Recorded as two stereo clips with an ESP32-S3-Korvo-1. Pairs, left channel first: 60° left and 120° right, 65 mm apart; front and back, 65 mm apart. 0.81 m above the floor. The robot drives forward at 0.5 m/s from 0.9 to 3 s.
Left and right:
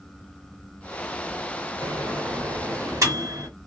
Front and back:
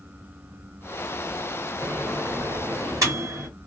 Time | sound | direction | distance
1.8 | a microwave | 125° right | 0.7 m